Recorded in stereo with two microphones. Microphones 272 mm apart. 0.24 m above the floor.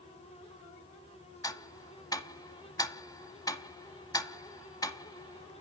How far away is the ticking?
About 0.6 m.